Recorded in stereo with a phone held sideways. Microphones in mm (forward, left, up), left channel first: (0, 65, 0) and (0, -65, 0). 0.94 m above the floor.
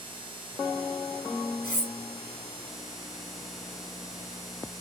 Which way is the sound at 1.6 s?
70° left (ahead or behind).